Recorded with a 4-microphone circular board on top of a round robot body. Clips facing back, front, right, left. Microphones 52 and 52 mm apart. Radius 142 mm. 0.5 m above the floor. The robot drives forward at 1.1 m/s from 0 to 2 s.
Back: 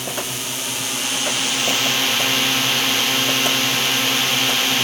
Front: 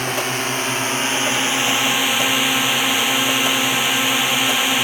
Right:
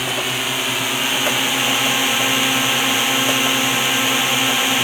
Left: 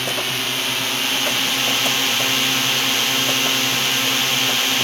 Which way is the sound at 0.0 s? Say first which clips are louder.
Front 6 dB, right 2 dB; 10° right.